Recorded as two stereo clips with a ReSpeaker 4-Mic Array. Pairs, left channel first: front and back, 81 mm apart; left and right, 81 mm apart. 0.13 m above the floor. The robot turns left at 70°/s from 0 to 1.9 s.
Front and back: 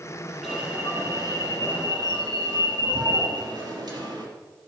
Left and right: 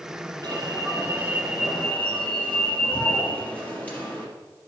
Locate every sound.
0.4 s an alarm: 100° right, 4 m; by 4.3 s 155° left, 4 m